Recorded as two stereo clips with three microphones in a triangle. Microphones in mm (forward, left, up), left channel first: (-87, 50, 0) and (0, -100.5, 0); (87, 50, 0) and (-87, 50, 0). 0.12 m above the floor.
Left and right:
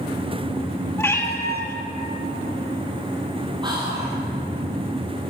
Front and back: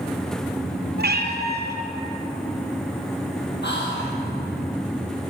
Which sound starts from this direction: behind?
A cat meowing, at 1.0 s.